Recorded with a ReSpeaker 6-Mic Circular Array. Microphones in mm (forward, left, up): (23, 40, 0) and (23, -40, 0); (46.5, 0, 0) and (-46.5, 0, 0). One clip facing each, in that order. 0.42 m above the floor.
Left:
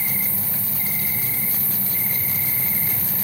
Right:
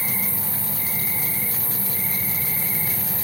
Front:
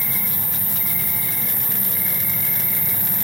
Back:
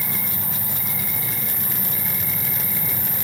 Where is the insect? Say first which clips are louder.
Right 1 dB, even; 155° left, 5 m.